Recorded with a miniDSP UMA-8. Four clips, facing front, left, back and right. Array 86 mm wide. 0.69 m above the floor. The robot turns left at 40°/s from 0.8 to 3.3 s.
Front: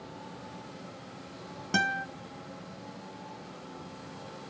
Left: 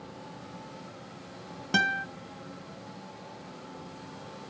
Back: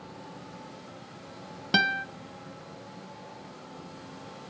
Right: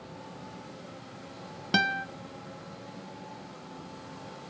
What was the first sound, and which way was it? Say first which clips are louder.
A guitar: even, back 3 dB; 155° right.